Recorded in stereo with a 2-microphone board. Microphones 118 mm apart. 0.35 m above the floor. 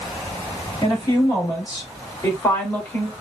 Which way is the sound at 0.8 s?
40° left (ahead or behind).